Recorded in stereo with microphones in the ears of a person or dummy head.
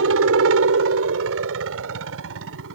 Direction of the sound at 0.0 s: 70° right (ahead or behind).